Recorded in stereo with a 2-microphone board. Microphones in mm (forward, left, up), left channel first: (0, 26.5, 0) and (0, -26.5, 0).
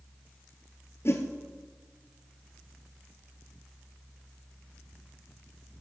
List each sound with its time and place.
1.1 s a whoosh: 55° left (ahead or behind), 1.7 m